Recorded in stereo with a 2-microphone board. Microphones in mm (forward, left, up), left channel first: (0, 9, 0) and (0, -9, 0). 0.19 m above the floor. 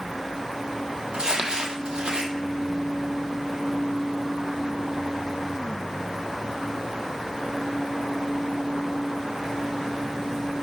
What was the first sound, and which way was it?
Crumpling, 65° right (ahead or behind).